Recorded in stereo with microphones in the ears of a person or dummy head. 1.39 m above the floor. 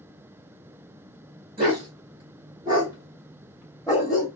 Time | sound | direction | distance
1.6 | a dog barking | 35° right (ahead or behind) | 2.0 m